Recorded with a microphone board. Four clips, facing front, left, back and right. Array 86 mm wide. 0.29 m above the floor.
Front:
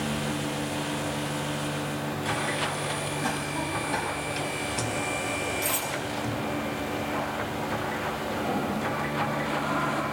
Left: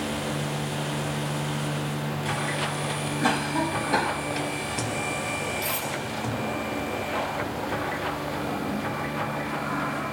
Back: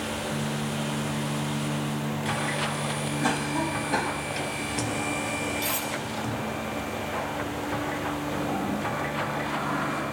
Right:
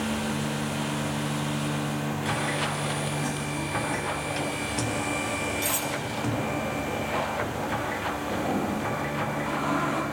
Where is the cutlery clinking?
140° right, 6 m.